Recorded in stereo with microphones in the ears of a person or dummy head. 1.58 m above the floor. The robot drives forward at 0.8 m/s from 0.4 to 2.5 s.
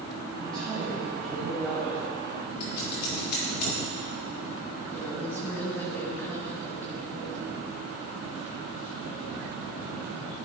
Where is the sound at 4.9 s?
15° left (ahead or behind), 2 m.